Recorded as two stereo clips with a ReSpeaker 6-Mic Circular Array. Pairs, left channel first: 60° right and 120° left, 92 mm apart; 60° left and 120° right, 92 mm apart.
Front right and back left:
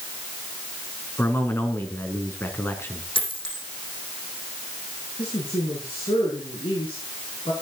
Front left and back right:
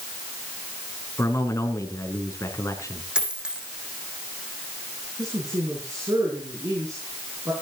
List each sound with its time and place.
1.2 s a man speaking: 5° left, 3.5 m
3.1 s a dropped coin: 40° right, 6 m
5.2 s a woman speaking: 70° right, 6 m